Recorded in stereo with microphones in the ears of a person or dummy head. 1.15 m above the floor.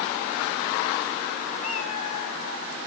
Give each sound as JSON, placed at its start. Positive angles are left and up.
{"t": 1.6, "sound": "a cat meowing", "side_deg": 45, "distance_m": 1.3}